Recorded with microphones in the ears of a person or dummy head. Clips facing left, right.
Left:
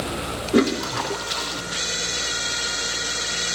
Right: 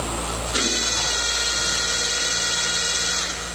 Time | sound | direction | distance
0.5 | a toilet flushing | 60° left (ahead or behind) | 1.6 m